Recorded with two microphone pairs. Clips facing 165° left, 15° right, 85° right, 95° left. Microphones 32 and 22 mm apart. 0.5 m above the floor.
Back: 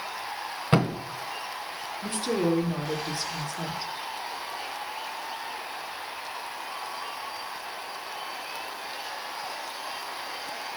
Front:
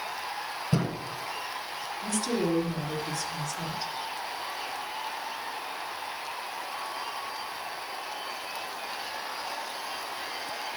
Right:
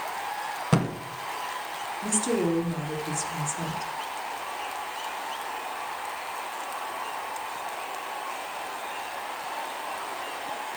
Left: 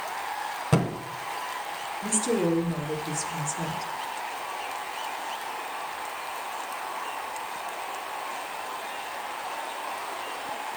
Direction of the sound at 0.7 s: 165° right.